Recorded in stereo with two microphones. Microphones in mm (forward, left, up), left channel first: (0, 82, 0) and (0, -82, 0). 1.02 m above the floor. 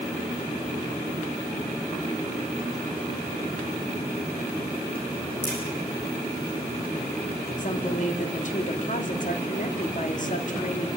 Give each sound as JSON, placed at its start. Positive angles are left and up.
{"t": 5.4, "sound": "a crack", "side_deg": 15, "distance_m": 8.0}
{"t": 7.6, "sound": "a woman speaking", "side_deg": 55, "distance_m": 1.9}